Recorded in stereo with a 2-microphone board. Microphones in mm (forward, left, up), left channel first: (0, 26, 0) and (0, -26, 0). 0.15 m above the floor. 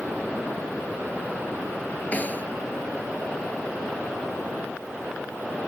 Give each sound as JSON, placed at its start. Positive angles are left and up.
{"t": 2.1, "sound": "a snare drum", "side_deg": 30}